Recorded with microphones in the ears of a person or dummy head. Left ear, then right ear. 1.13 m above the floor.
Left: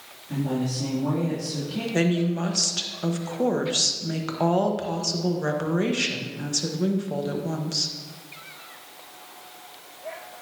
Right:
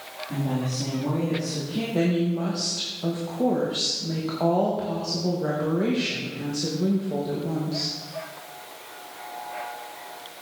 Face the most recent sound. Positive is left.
turn(degrees=60)  # may be behind; listen again after turning